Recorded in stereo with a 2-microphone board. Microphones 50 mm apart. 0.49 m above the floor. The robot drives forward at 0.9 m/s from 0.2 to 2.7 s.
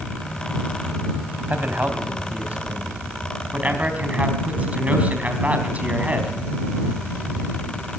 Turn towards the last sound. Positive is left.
turn(degrees=-30)  # may be behind; listen again after turning